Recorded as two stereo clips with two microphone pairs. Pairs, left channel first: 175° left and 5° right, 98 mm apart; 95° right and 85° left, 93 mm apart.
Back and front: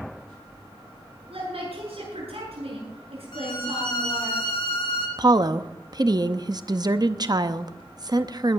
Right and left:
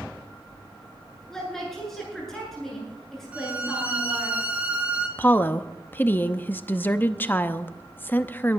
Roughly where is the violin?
Behind left.